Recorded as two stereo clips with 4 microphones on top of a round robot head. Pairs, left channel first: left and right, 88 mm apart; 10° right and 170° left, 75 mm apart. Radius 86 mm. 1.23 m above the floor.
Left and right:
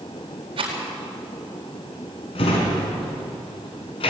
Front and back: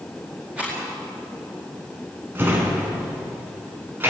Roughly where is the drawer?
Left.